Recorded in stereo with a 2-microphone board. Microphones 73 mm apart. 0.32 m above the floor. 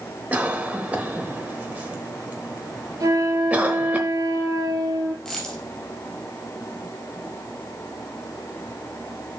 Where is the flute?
50° right (ahead or behind), 3 m.